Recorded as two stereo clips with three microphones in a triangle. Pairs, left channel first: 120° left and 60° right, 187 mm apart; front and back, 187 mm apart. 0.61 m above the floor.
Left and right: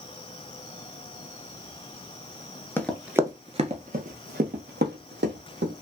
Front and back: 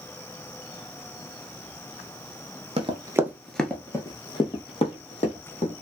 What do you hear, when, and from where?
2.8 s running footsteps: 170° right, 0.6 m; by 5.7 s 50° right, 1.7 m